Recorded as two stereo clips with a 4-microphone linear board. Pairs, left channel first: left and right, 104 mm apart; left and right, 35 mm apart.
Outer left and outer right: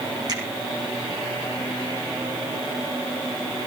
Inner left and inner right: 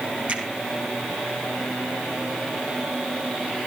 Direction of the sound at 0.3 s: 40° right (ahead or behind).